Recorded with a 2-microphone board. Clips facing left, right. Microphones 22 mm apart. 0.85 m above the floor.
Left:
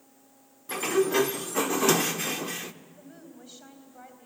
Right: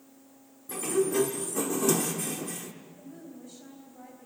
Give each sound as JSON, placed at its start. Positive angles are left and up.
{"t": 0.7, "sound": "a sliding door", "side_deg": 45, "distance_m": 0.8}
{"t": 3.0, "sound": "a woman speaking", "side_deg": 45, "distance_m": 4.0}